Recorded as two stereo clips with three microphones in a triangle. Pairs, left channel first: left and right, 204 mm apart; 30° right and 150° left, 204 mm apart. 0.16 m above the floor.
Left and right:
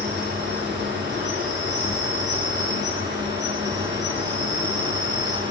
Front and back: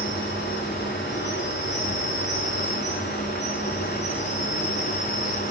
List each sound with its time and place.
0.0 s an insect: 60° right, 9.5 m